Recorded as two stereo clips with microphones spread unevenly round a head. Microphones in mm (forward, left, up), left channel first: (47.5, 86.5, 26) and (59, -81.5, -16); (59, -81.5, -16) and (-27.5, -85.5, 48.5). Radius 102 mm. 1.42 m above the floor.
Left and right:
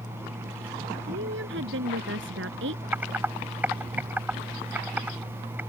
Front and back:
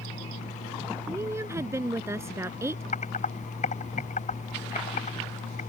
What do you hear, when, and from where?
1.1 s a woman speaking: 120° right
2.9 s typing on a keyboard: straight ahead